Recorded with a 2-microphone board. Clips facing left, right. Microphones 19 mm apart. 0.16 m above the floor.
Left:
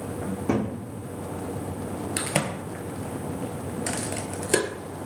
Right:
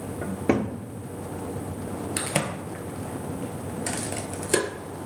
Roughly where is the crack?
Centre.